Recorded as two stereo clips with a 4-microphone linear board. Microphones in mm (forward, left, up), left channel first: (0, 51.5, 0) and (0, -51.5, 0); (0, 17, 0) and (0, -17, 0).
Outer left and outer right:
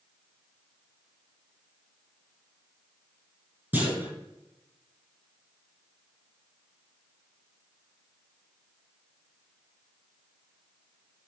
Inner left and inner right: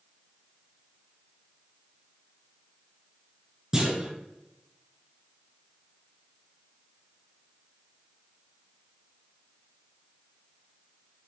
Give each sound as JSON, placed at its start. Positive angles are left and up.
{"t": 3.7, "sound": "a clunk", "side_deg": -20, "distance_m": 5.5}